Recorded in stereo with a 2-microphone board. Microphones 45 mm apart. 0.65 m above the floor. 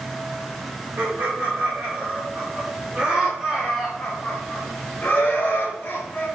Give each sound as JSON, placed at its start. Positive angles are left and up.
{"t": 1.0, "sound": "laughter", "side_deg": -50, "distance_m": 1.9}